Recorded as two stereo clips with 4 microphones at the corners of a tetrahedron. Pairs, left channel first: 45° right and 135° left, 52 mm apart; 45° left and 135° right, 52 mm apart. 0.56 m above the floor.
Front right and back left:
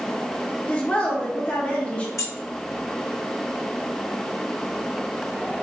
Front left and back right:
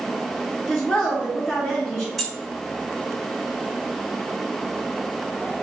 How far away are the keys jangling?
About 1.2 m.